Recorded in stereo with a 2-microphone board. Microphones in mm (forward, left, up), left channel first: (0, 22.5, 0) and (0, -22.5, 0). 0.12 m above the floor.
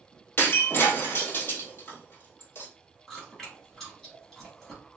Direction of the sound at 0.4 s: 45° left (ahead or behind).